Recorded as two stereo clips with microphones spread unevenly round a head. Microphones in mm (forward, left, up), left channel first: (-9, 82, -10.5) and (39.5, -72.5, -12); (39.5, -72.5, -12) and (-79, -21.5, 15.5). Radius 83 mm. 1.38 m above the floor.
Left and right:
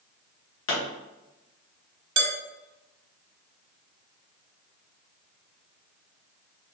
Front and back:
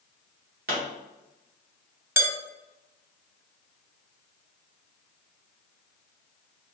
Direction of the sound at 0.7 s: 120° left.